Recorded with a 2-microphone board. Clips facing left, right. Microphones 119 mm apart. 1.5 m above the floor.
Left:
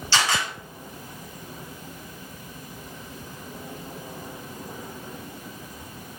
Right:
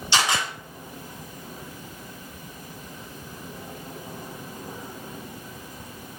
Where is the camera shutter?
15° right (ahead or behind), 1.7 m.